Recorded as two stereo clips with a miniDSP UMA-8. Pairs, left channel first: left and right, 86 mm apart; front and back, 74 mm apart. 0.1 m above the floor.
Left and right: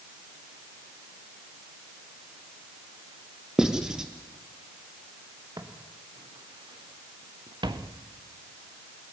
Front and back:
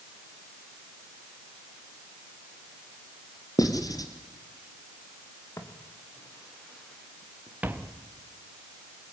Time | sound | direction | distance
3.6 | writing | 10° right | 2.5 m
5.6 | footsteps | 45° right | 3 m